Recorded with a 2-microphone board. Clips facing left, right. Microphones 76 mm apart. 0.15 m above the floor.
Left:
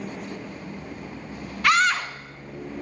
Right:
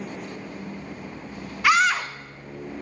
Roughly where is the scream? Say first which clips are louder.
Right 1 dB; centre.